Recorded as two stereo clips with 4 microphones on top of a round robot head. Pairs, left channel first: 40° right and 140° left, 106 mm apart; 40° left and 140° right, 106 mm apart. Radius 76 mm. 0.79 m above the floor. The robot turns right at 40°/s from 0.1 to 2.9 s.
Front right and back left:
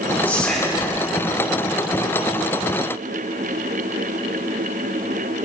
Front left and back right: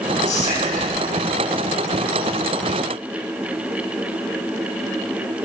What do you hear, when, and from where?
0.2 s whispering: 35° left, 8 m; by 0.9 s 60° left, 8 m